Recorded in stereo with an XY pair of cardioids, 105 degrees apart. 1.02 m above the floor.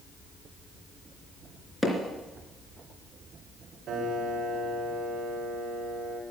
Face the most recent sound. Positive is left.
turn(degrees=-65)